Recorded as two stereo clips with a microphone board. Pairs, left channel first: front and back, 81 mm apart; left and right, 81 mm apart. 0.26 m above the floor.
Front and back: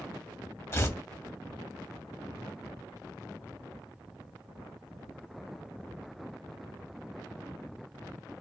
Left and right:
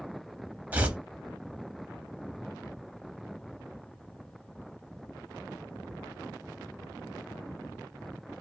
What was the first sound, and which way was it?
Tearing paper, 30° right.